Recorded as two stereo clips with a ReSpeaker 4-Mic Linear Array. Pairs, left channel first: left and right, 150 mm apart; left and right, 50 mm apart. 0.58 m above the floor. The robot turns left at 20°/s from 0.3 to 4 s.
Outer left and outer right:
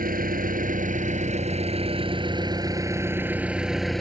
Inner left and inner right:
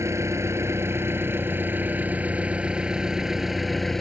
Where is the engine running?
110° right; by 4.0 s straight behind.